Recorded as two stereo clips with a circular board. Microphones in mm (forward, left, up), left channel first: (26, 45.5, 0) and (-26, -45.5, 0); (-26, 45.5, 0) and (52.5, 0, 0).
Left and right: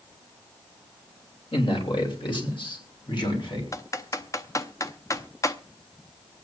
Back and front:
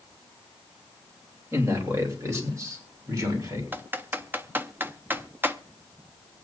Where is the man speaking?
30° left, 2.5 m; by 3.6 s 20° left, 3.5 m.